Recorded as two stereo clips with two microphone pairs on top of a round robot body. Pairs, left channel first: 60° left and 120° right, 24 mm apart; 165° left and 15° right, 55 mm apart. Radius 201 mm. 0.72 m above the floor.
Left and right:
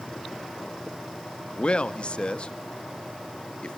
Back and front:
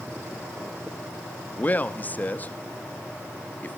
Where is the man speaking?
105° left, 1.4 m.